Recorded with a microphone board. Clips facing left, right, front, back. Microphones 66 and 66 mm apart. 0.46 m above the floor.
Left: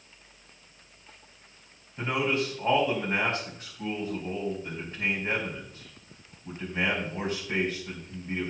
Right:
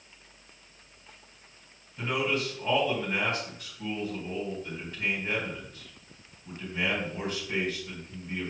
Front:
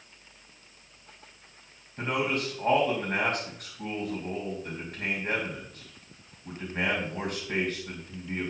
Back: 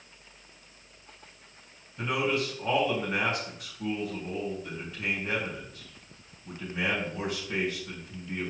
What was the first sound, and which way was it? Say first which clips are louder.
A man speaking: left 2 dB, even; 35° left.